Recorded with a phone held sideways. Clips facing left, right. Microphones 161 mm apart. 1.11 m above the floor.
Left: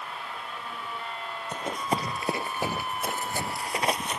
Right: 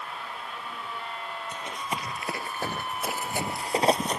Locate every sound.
1.5 s running footsteps: 50° left (ahead or behind); by 4.2 s 40° right (ahead or behind)